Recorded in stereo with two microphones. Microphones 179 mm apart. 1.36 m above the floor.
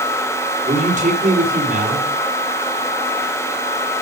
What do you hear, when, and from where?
0.7 s a man speaking: 45° right (ahead or behind), 4.5 m